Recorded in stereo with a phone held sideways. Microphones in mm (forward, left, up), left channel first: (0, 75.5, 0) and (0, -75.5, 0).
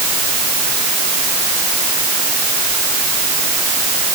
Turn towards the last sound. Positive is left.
No sound to turn to.